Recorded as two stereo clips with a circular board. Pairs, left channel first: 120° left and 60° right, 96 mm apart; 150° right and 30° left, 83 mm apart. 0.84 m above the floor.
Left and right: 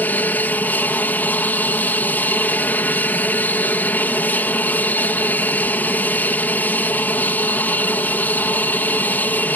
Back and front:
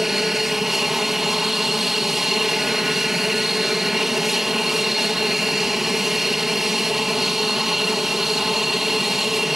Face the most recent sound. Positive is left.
turn(degrees=110)